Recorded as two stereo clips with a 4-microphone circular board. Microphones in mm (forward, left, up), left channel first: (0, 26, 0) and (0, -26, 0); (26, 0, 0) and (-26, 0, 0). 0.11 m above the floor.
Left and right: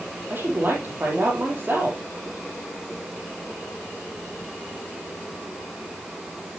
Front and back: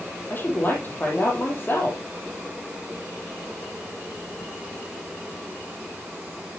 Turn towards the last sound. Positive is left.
turn(degrees=-45)